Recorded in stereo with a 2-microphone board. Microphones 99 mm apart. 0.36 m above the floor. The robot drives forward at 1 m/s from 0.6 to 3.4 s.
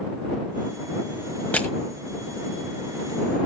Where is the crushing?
15° left (ahead or behind), 1.7 m.